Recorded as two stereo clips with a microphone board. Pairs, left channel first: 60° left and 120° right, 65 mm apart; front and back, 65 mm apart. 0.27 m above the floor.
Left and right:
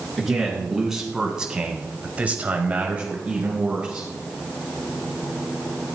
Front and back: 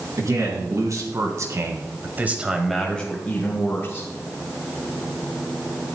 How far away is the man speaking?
About 3.5 m.